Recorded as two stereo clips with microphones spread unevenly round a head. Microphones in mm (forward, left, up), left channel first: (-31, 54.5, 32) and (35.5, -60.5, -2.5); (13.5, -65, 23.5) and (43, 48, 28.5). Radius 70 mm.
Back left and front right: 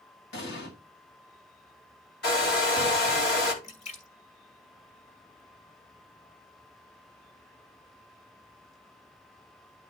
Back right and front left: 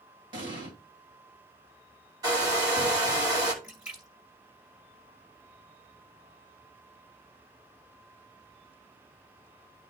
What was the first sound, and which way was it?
An explosion, 130° left.